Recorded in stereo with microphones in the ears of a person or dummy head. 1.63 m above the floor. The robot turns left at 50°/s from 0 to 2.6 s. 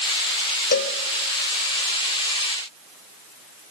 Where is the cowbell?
45° left (ahead or behind), 1.1 m; by 0.9 s 55° left (ahead or behind), 1.1 m.